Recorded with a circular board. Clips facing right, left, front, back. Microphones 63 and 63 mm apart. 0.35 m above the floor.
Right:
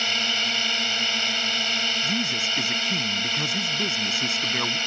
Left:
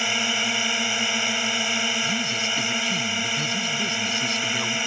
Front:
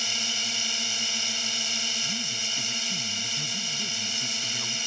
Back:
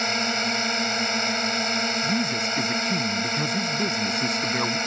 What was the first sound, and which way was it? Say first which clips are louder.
A drone: left 2 dB, back 9 dB; 165° left.